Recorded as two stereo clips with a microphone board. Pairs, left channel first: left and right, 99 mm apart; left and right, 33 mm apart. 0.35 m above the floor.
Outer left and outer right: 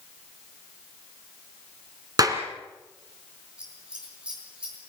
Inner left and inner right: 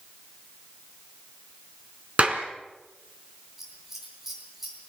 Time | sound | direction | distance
2.2 | a clap | 40° right (ahead or behind) | 2.5 m
3.6 | scissors | 10° right (ahead or behind) | 7 m